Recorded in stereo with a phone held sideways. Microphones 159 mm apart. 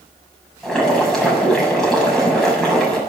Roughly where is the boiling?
Centre.